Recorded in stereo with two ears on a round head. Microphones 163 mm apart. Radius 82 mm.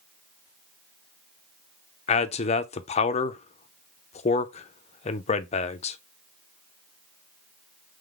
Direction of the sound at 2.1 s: 35° left (ahead or behind).